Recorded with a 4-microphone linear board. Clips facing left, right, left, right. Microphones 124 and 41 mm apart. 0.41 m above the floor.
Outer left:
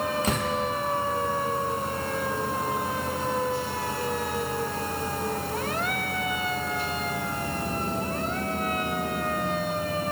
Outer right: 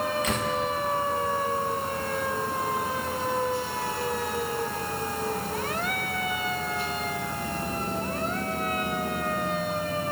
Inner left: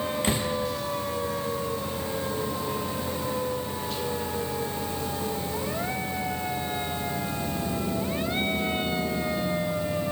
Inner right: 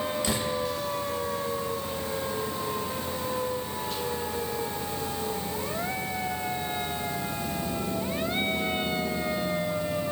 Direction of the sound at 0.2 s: 35° left (ahead or behind).